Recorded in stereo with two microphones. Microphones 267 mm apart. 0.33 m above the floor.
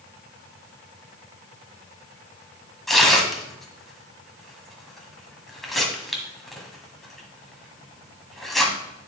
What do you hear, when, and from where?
2.9 s tearing paper: centre (ahead or behind), 1.6 m